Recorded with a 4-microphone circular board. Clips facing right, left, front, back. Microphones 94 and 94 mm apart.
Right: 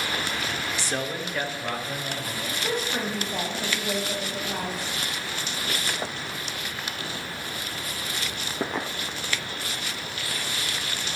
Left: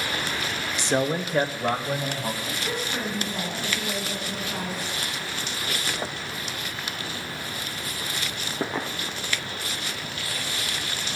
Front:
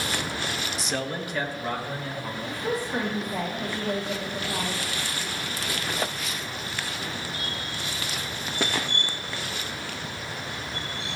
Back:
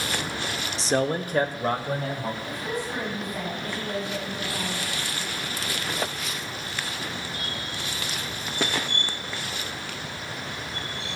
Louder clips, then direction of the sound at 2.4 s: Right 1 dB, front 2 dB; 55° right.